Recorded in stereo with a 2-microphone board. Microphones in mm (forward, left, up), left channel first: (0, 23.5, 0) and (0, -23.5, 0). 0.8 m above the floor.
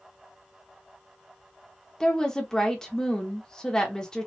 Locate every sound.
2.0 s a woman speaking: 15° left (ahead or behind), 1.0 m